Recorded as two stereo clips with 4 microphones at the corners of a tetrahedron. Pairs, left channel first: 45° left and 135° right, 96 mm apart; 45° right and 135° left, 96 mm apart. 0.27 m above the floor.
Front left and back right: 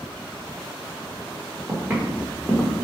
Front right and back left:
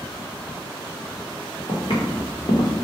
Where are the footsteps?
75° right, 1.4 m; by 2.9 s 25° right, 0.9 m.